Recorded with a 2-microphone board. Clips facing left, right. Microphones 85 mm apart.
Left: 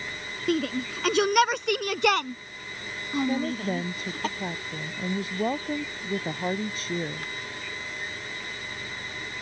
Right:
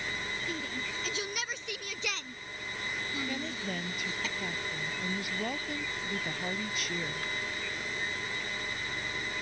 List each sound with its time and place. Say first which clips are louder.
0.5 s a shout: left 11 dB; 70° left (ahead or behind); by 4.3 s 50° left (ahead or behind)
3.3 s a woman speaking: left 9 dB; 35° left (ahead or behind)